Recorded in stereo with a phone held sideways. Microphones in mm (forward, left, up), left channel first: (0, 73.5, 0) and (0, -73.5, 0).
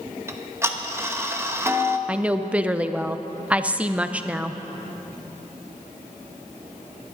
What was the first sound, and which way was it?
Ticking, 15° right (ahead or behind).